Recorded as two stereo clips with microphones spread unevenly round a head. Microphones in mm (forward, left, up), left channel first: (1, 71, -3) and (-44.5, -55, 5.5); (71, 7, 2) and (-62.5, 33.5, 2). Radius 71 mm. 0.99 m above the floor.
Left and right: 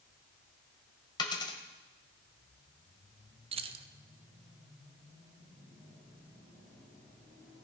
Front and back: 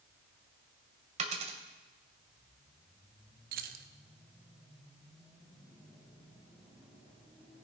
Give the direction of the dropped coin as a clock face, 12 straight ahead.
8 o'clock.